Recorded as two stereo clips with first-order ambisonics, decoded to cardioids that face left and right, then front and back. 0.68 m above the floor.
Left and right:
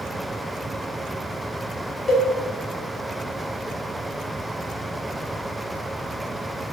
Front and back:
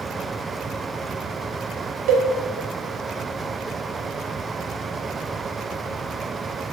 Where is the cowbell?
165° left, 2.5 m.